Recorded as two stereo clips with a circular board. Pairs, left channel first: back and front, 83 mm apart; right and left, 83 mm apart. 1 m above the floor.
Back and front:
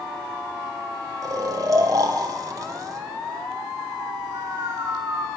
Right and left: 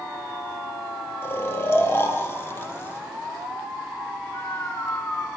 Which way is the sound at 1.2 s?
35° right.